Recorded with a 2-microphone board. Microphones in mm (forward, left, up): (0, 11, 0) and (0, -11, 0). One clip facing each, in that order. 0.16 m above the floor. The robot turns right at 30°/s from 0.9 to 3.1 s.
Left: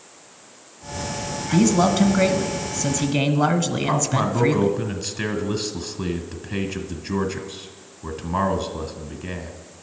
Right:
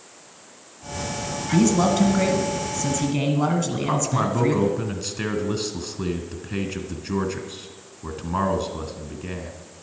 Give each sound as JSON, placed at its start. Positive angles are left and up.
{"t": 1.5, "sound": "a man speaking", "side_deg": 10, "distance_m": 1.1}
{"t": 3.8, "sound": "a man speaking", "side_deg": 0, "distance_m": 1.6}